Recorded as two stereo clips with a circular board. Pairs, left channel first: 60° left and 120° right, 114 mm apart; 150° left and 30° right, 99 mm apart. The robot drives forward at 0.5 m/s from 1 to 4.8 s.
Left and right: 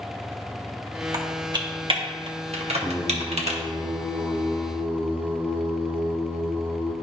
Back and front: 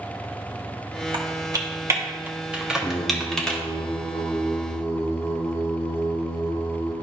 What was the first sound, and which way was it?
Typing on a keyboard, 70° right.